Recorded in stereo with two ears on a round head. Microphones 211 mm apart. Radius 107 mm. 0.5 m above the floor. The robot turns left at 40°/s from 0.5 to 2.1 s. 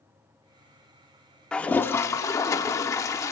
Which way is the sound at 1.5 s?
5° left (ahead or behind).